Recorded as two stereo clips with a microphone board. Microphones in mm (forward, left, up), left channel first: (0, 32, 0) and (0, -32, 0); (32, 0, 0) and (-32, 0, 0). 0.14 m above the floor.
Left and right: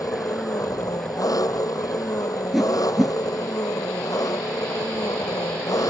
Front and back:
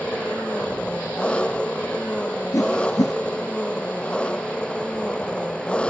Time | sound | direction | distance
0.0 | an engine running | 75° left | ?
2.5 | a whoosh | 5° right | ?